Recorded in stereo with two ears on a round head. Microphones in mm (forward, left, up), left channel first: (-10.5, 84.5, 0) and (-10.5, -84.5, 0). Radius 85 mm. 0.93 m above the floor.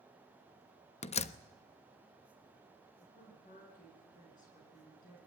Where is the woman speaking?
40° left (ahead or behind), 10 m.